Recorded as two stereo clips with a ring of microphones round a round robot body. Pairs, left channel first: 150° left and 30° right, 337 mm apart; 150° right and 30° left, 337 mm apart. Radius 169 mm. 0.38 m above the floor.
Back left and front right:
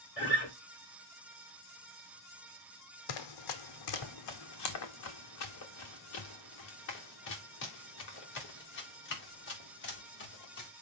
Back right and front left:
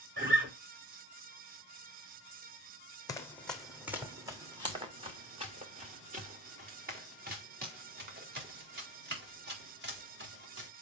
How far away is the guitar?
About 6 m.